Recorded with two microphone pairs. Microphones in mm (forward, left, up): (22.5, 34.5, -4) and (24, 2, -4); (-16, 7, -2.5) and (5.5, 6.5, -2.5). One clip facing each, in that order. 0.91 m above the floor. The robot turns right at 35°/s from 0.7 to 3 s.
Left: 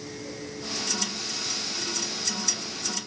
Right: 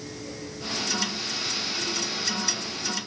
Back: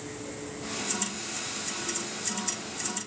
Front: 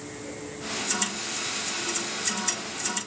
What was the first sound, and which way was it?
Only background noise.